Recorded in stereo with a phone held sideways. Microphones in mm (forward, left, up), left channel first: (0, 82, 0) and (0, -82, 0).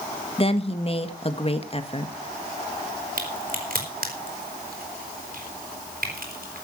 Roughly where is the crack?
Right.